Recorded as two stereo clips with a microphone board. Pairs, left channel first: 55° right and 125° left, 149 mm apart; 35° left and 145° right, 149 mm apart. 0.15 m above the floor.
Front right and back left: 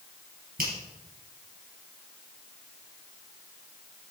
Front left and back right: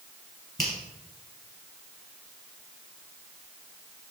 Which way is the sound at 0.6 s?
120° left.